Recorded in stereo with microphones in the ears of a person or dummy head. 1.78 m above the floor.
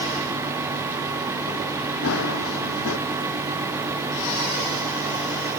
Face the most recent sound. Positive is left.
turn(degrees=85)